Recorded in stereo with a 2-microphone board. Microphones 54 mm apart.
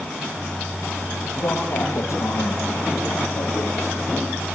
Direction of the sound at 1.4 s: 80° left.